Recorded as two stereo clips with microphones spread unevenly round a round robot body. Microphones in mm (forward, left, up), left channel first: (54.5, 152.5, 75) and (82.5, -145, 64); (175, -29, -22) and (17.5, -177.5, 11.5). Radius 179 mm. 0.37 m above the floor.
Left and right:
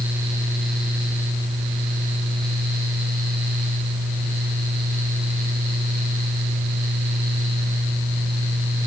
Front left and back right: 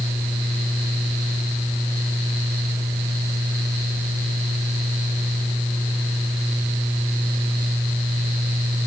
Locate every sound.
Only background noise.